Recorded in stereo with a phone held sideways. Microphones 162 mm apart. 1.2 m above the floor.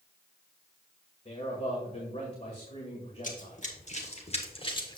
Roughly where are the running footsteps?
Left.